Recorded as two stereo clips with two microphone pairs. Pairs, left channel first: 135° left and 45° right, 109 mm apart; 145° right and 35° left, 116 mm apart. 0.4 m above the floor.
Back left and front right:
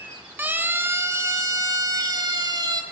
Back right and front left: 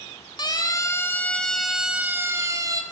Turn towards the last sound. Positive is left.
turn(degrees=-10)